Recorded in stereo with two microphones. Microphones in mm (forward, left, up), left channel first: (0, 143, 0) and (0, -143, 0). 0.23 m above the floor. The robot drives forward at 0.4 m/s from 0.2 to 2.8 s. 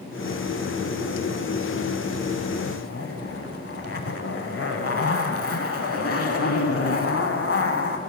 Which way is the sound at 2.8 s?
55° left (ahead or behind).